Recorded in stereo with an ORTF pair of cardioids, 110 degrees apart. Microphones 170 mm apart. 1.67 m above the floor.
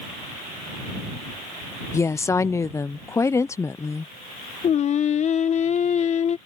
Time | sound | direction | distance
1.9 | a woman speaking | 15° left | ?
4.6 | singing | 45° left | ?